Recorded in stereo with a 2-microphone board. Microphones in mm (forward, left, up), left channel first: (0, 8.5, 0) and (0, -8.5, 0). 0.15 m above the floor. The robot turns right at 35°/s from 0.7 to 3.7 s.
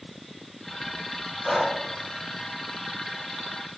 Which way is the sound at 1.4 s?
25° left (ahead or behind).